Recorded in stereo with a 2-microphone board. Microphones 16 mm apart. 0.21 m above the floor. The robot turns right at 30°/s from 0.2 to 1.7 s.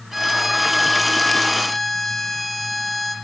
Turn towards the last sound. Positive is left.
turn(degrees=25)